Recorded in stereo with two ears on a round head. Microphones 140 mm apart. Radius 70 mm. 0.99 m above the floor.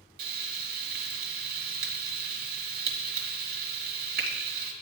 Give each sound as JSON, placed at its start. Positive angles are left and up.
{"t": 0.2, "sound": "frying", "side_deg": -65, "distance_m": 1.6}